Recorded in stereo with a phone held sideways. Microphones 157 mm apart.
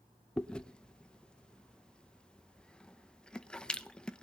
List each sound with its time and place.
0.4 s chewing: 5° left (ahead or behind), 0.7 m